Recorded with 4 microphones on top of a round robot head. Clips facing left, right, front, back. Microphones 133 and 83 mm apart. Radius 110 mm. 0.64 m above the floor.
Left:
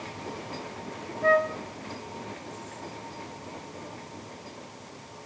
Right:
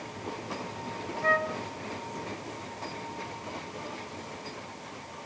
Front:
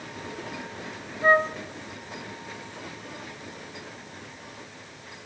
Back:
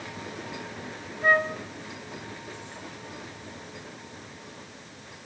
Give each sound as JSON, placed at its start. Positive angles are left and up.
{"t": 1.2, "sound": "a flute", "azimuth_deg": 55, "distance_m": 1.0}